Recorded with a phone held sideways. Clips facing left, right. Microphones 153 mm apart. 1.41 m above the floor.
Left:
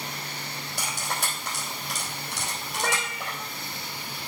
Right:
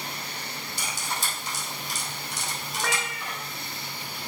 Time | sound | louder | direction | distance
0.8 | cutlery clinking | left 2 dB | 65° left (ahead or behind) | 4 m
2.7 | a cat meowing | left 2 dB | 35° left (ahead or behind) | 4 m